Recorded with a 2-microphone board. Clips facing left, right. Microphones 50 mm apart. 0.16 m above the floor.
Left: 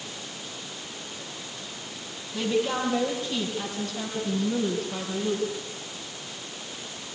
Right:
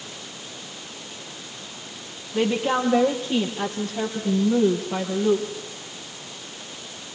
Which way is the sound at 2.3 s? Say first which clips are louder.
Right 4 dB; 45° right (ahead or behind).